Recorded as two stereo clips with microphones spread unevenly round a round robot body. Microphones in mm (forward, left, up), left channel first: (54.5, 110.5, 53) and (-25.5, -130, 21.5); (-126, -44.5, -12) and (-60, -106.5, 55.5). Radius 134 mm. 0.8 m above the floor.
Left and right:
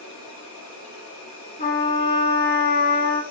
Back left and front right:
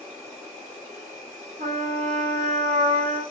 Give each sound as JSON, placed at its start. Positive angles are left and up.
{"t": 0.0, "sound": "an insect", "azimuth_deg": 65, "distance_m": 1.3}
{"t": 1.6, "sound": "a trumpet", "azimuth_deg": 10, "distance_m": 1.0}